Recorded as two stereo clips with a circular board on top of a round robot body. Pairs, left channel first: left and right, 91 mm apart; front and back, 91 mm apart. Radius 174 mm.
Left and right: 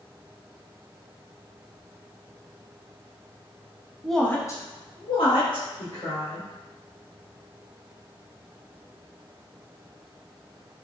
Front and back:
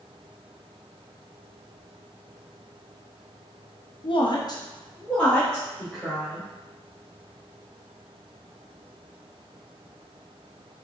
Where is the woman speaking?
5° right, 0.7 m; by 6.5 s 90° left, 2.0 m.